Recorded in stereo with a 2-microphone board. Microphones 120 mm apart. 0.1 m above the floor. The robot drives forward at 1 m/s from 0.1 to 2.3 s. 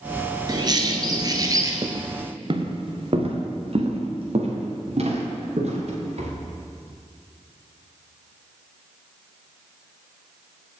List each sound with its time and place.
0.5 s a bird: 35° right (ahead or behind), 1.2 m; by 1.7 s 30° right (ahead or behind), 1.5 m
1.8 s footsteps: 50° right (ahead or behind), 0.9 m; by 6.3 s 60° right (ahead or behind), 4 m